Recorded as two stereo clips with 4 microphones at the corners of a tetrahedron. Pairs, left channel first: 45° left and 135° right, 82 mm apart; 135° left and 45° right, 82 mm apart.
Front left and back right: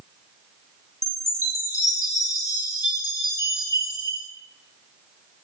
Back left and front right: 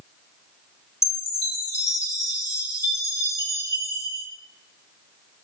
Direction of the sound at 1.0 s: 85° left.